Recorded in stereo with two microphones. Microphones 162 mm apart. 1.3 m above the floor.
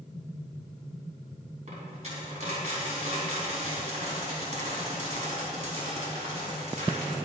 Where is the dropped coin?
45° right (ahead or behind), 3 m.